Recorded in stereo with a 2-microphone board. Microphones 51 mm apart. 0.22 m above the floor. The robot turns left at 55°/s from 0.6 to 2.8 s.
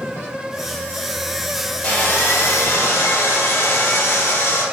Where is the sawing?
155° left, 3 m; by 4.6 s 100° left, 3 m.